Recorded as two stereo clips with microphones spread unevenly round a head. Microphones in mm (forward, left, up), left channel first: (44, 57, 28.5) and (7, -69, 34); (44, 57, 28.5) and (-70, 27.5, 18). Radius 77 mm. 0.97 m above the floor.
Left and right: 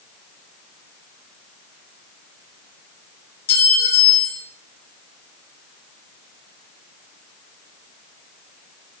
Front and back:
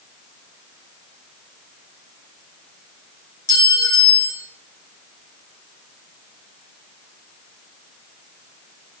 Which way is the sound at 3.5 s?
80° left.